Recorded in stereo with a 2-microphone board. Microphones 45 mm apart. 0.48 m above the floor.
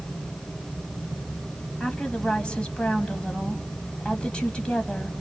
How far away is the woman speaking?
About 2.5 m.